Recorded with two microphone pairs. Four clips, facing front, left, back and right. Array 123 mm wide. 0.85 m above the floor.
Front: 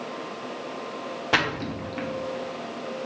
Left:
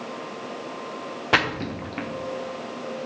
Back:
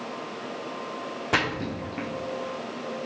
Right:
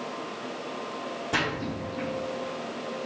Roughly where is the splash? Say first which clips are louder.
Left 6 dB, front 1 dB; left.